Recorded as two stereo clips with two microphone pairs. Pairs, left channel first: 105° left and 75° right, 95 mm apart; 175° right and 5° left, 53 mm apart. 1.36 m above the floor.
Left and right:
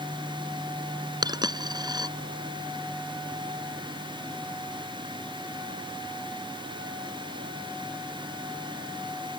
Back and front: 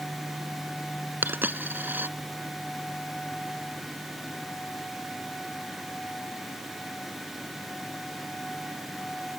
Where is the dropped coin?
40° right.